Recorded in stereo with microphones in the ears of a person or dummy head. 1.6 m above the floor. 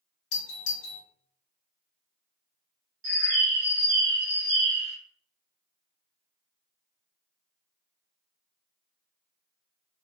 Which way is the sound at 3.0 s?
80° right.